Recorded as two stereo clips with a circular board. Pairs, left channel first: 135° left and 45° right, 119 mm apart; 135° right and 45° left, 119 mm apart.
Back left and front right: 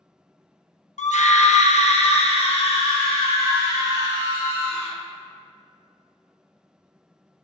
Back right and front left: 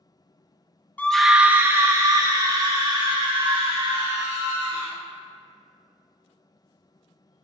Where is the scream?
150° left, 0.6 m; by 5.0 s 90° left, 3 m.